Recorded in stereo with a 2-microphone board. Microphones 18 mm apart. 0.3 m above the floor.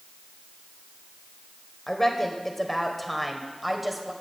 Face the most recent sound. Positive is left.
turn(degrees=-5)  # may be behind; listen again after turning